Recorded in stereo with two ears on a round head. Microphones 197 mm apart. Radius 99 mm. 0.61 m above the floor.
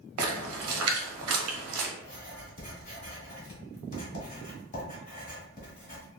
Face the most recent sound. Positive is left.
turn(degrees=40)  # may be behind; listen again after turning